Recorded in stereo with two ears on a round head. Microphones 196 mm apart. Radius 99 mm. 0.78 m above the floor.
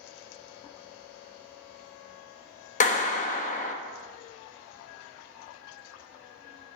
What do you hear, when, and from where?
2.8 s a clap: 35° left (ahead or behind), 0.9 m